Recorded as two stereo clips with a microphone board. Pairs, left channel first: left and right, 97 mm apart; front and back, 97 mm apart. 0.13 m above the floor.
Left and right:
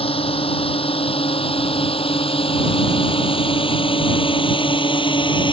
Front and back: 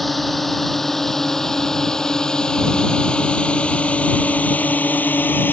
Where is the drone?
90° left; by 5.5 s 70° left.